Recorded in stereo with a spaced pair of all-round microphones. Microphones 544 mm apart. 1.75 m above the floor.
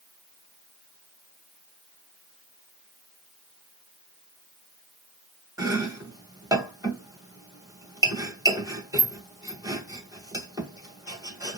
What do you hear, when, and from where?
5.6 s chopping: 5° right (ahead or behind), 1.8 m